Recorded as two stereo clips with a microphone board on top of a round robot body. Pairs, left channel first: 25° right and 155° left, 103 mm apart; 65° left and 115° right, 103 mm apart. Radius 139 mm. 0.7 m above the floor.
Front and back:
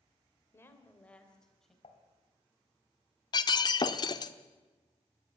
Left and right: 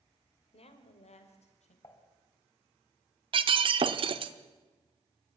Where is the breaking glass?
75° right, 1.0 m.